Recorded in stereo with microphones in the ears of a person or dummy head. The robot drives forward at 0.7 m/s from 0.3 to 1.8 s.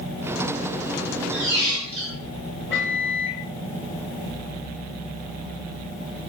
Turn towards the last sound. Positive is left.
turn(degrees=10)  # may be behind; listen again after turning